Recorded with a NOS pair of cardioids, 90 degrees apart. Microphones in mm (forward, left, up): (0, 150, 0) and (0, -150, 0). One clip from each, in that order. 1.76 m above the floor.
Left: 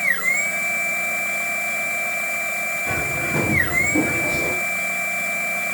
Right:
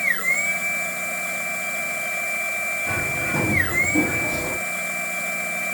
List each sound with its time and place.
0.0 s a machine running: 5° left, 1.0 m
2.9 s a bird: 10° left, 2.5 m